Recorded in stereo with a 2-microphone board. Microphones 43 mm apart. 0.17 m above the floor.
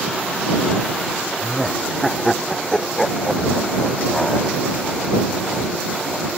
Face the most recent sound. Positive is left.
turn(degrees=5)  # may be behind; listen again after turning